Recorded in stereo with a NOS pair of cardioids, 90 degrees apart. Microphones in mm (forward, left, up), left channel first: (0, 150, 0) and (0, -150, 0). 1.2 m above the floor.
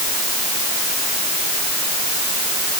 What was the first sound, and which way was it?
Only background noise.